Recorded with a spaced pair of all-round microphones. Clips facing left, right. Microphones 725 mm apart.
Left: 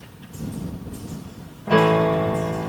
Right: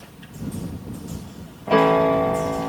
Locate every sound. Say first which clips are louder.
1.7 s a piano: even; 45° left (ahead or behind)